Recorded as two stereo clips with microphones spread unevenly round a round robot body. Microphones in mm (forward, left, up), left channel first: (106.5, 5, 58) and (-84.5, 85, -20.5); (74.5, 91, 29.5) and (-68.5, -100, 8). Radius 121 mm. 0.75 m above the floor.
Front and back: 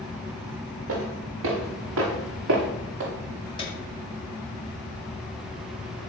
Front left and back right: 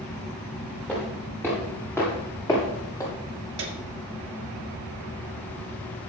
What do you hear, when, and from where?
0.9 s footsteps: 140° left, 6 m; by 3.1 s 130° left, 7 m
3.6 s a piano: 100° right, 1.9 m